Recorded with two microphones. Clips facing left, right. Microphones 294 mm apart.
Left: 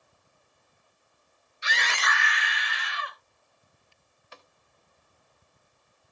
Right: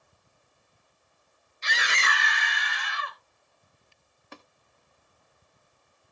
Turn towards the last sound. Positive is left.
turn(degrees=-55)  # may be behind; listen again after turning